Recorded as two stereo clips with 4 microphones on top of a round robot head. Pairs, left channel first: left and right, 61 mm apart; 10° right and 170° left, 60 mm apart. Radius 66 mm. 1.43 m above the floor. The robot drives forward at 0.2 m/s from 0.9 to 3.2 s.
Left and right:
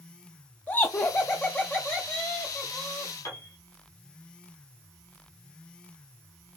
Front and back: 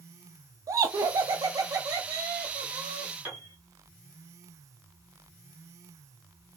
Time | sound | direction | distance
0.7 | laughter | 150° left | 0.5 m
3.2 | a piano | 125° left | 1.9 m